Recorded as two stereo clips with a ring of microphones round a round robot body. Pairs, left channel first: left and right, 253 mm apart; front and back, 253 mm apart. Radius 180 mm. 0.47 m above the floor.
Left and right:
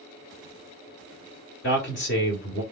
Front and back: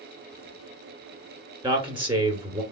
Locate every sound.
1.6 s a man speaking: 115° left, 1.4 m